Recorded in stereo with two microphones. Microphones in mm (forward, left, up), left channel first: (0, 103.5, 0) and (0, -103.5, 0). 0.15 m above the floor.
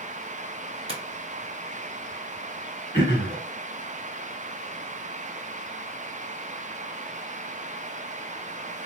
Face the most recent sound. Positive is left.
turn(degrees=-25)  # may be behind; listen again after turning